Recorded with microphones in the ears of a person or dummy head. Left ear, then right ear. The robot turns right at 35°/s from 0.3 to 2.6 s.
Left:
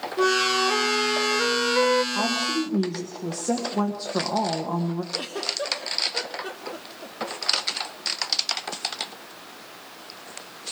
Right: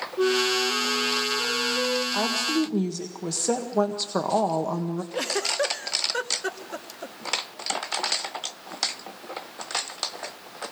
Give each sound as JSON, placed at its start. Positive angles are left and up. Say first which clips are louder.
{"t": 0.2, "sound": "a flute", "louder": "left 2 dB", "azimuth_deg": 35, "distance_m": 0.7}
{"t": 2.1, "sound": "a woman speaking", "louder": "even", "side_deg": -65, "distance_m": 1.7}
{"t": 5.1, "sound": "a giggle", "louder": "right 5 dB", "side_deg": -55, "distance_m": 1.1}